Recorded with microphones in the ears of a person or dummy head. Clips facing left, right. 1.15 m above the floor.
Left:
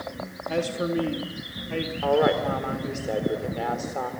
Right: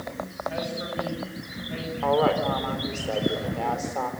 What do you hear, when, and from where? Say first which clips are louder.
0.5 s a man speaking: left 8 dB; 75° left (ahead or behind), 2.5 m
2.0 s a woman speaking: left 1 dB; 15° left (ahead or behind), 4 m